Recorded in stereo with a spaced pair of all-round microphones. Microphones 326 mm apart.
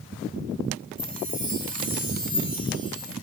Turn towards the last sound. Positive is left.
turn(degrees=-25)  # may be behind; listen again after turning